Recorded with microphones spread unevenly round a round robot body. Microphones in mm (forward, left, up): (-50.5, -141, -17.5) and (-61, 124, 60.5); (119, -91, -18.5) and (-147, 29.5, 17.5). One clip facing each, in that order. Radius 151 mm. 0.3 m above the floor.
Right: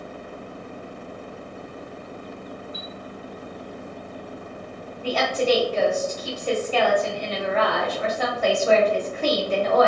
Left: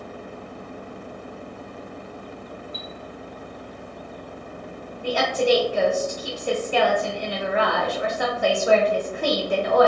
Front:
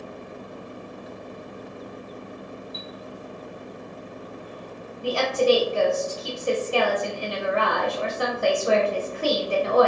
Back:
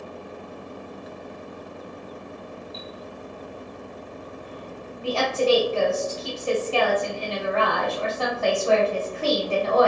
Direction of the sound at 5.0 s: 5° right.